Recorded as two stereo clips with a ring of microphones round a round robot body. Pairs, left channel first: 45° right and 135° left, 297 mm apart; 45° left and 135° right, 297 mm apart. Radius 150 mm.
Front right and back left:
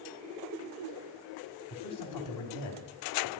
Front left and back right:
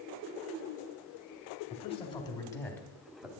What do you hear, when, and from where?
1.7 s a man speaking: 25° right, 3 m; by 3.4 s 50° right, 2.5 m